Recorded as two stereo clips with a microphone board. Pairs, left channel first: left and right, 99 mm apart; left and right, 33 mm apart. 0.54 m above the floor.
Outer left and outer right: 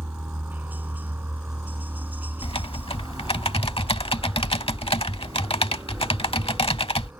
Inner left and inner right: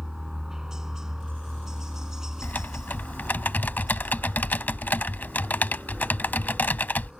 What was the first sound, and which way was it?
A helicopter, 15° right (ahead or behind).